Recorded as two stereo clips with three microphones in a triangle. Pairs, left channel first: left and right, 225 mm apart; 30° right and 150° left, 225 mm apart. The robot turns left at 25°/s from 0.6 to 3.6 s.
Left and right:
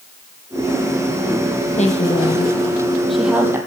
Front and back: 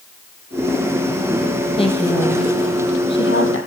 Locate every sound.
1.8 s a woman speaking: 35° left, 3 m; by 3.6 s 10° right, 3 m